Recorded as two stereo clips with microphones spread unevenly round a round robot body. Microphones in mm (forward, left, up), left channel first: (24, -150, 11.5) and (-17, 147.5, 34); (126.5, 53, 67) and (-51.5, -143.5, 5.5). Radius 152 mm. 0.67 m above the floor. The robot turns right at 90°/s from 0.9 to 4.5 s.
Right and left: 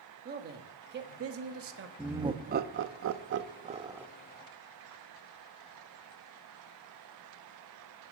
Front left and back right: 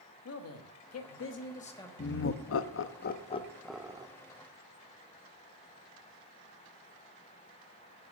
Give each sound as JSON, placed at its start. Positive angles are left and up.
{"t": 0.2, "sound": "a man speaking", "azimuth_deg": 50, "distance_m": 1.2}
{"t": 2.0, "sound": "laughter", "azimuth_deg": 5, "distance_m": 0.7}